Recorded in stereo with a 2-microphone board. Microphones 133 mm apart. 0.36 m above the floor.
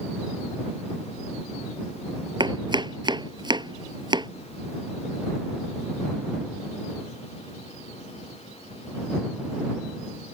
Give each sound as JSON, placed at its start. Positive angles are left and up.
{"t": 2.4, "sound": "chopping", "side_deg": -35}